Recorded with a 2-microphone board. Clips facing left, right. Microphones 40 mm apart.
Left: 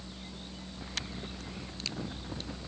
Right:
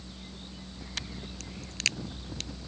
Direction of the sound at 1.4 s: 85° right.